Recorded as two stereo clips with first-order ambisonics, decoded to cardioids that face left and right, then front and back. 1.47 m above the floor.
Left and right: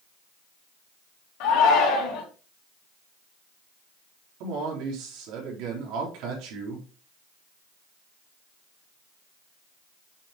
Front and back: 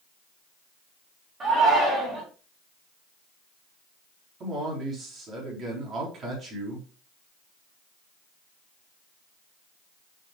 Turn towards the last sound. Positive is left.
turn(degrees=-115)